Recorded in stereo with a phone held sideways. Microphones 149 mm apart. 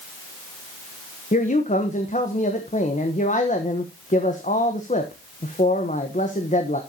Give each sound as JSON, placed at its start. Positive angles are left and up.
{"t": 1.3, "sound": "a man speaking", "side_deg": 50, "distance_m": 1.1}